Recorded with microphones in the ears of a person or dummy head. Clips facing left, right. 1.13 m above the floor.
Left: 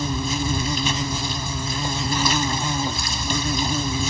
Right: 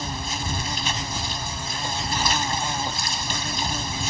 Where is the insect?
80° left.